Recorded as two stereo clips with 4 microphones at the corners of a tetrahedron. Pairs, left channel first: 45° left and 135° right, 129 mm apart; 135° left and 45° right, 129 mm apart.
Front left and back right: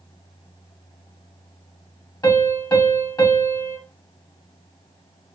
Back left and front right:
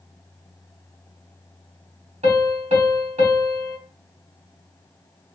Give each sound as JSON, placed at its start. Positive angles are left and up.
{"t": 2.2, "sound": "a piano", "azimuth_deg": -15, "distance_m": 1.5}